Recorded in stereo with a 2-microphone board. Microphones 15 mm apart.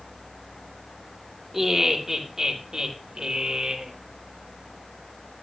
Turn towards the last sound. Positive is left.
turn(degrees=-45)  # may be behind; listen again after turning